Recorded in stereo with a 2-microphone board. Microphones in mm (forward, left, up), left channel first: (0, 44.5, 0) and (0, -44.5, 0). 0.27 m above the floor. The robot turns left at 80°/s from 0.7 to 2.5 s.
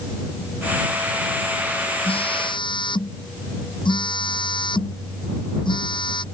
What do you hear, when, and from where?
2.0 s a phone buzzing: 95° left; by 6.2 s 60° left